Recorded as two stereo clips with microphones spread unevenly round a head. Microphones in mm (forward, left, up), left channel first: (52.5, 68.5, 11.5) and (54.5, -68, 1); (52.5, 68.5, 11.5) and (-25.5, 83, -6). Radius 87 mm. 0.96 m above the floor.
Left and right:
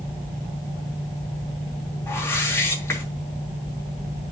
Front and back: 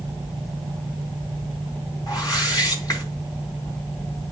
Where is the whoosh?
20° left, 3.5 m.